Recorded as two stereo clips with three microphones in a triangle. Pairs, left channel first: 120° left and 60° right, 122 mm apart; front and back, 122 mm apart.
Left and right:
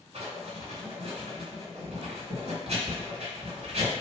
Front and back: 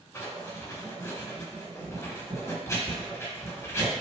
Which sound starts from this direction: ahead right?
Writing, at 0.1 s.